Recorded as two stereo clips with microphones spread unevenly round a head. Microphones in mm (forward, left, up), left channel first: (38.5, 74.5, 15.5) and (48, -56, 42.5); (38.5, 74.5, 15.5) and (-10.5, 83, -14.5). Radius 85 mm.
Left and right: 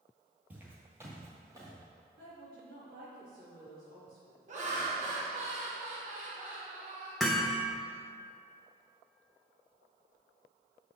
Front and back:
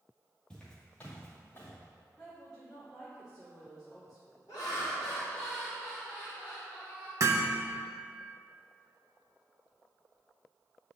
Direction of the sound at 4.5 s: 55° right.